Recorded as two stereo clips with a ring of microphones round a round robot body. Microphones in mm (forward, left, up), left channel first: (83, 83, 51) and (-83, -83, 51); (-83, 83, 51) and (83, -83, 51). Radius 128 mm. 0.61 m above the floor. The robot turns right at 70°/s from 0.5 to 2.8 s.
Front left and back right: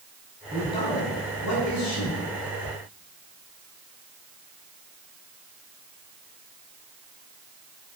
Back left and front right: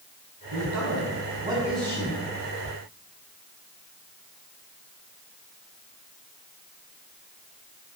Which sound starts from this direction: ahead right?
A man speaking, at 0.5 s.